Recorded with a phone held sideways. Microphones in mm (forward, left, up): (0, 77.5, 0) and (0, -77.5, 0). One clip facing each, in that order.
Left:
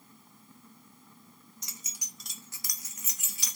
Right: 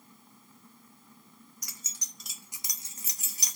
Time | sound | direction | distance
1.6 | keys jangling | 25° left (ahead or behind) | 0.6 m